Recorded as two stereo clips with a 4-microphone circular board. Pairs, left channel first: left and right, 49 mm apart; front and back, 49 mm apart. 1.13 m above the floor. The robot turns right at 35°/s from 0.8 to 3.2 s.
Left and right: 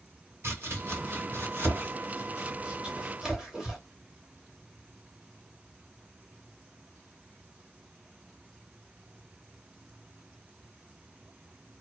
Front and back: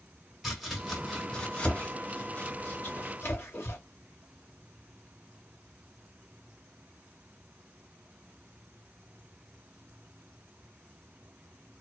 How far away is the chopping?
About 1.4 m.